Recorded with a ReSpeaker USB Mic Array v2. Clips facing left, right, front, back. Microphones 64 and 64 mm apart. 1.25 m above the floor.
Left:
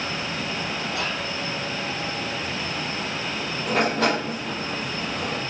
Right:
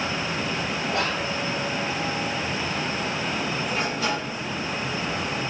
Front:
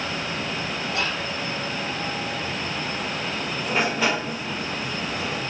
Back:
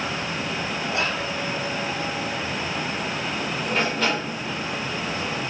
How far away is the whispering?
About 1.4 m.